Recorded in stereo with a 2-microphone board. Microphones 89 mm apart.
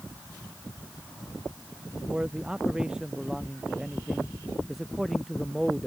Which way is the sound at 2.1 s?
10° right (ahead or behind).